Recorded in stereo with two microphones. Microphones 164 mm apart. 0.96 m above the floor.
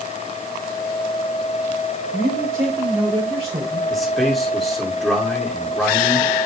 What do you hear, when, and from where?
2.1 s a man speaking: 15° right (ahead or behind), 3.5 m; by 3.8 s 35° right (ahead or behind), 3.5 m
3.9 s a man speaking: centre (ahead or behind), 3 m